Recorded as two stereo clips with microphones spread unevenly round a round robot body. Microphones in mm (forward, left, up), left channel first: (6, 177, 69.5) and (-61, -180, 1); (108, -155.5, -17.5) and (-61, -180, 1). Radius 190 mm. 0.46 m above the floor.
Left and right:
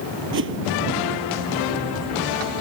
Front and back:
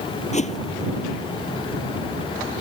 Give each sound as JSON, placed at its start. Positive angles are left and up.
{"t": 0.3, "sound": "a whoosh", "azimuth_deg": -40}